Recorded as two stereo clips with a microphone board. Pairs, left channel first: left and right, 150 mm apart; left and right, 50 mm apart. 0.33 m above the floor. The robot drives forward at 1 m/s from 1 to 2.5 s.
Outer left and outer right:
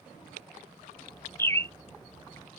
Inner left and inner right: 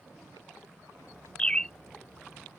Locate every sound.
1.4 s a bird: 20° left (ahead or behind); by 1.8 s 15° left (ahead or behind)